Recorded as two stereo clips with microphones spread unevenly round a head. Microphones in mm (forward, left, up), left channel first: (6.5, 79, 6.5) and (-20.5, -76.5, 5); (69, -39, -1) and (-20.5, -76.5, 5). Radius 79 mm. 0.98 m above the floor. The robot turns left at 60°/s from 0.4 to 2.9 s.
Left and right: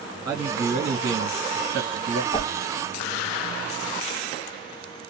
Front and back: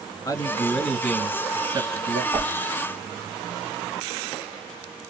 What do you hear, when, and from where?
0.2 s a man speaking: 30° right, 1.3 m; by 2.2 s 135° right, 1.3 m
2.3 s a whoosh: 135° left, 0.8 m; by 2.5 s 120° left, 0.8 m